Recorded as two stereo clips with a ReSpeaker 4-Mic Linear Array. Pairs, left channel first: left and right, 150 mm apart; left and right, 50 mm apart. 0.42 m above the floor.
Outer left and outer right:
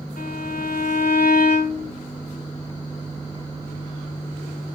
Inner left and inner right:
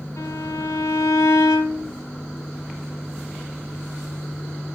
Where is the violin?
65° left (ahead or behind), 4.5 m.